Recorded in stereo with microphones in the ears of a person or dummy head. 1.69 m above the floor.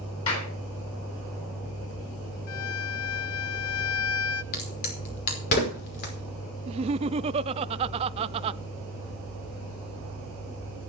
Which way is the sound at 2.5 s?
80° left.